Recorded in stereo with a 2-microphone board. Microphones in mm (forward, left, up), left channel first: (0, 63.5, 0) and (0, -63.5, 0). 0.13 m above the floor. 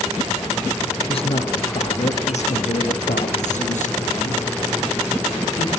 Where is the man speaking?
50° left (ahead or behind), 2 m; by 5.7 s 75° left (ahead or behind), 6 m.